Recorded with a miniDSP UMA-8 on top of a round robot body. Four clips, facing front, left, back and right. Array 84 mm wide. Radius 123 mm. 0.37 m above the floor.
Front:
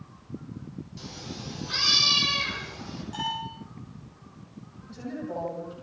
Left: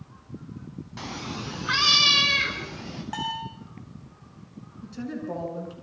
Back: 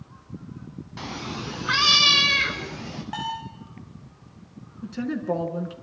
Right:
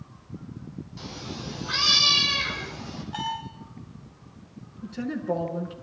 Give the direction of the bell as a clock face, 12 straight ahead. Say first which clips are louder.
Even, back 1 dB; 8 o'clock.